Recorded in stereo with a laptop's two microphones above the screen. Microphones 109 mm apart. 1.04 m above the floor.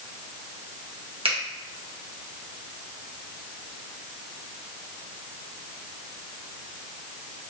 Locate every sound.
1.2 s a finger snap: 60° right (ahead or behind), 0.8 m